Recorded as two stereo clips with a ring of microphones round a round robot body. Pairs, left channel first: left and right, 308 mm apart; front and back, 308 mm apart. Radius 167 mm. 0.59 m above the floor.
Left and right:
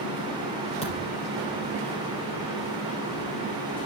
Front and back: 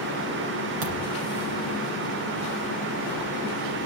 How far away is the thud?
About 3.5 m.